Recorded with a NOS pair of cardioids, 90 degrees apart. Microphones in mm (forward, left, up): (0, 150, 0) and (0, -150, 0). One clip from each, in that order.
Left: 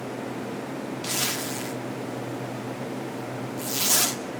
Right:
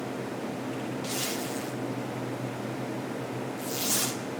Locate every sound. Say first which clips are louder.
1.0 s a zipper: left 6 dB; 40° left, 2 m